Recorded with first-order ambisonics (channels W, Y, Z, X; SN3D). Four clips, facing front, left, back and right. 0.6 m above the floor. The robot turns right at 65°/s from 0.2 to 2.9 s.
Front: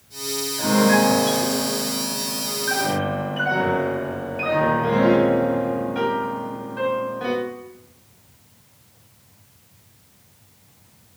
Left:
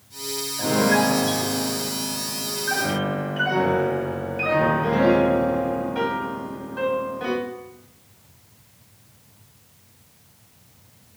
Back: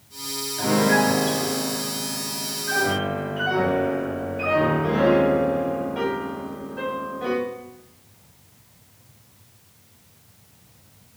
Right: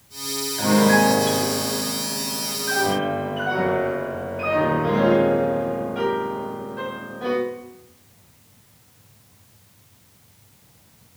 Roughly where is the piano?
Right.